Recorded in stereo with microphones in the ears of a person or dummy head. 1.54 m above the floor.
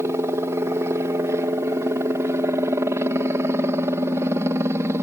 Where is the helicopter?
10° right (ahead or behind).